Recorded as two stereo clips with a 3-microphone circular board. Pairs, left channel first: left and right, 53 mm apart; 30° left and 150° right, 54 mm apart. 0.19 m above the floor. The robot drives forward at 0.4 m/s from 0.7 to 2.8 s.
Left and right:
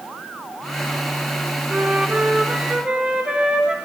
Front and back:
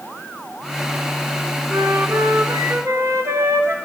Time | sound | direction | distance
1.7 | a flute | 150° right | 0.5 m